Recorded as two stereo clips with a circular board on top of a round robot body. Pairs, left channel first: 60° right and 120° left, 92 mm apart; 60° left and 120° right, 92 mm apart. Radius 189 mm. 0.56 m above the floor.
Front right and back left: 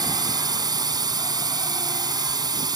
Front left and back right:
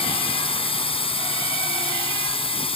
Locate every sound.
0.0 s a drone: 75° left